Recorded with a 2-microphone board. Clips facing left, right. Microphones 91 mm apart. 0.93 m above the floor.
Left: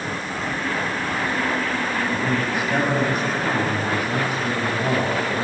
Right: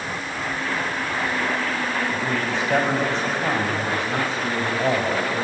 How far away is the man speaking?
About 5.5 m.